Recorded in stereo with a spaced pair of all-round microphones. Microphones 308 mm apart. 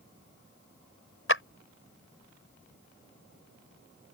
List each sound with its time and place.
1.3 s a clap: 45° left (ahead or behind)